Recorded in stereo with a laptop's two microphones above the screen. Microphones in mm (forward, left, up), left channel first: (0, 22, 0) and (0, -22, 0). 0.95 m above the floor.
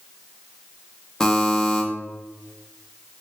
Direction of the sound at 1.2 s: 15° left (ahead or behind).